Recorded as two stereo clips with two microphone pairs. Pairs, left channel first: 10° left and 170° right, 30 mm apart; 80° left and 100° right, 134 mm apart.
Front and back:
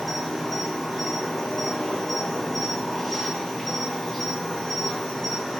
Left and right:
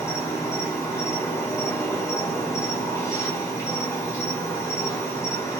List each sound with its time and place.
0.0 s an insect: 85° left, 0.9 m